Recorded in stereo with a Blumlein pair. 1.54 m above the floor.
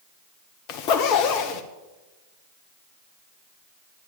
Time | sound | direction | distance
0.7 | a zipper | 40° left | 1.0 m